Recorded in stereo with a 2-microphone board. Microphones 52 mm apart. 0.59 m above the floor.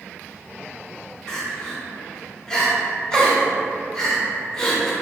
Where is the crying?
15° left (ahead or behind), 0.8 m.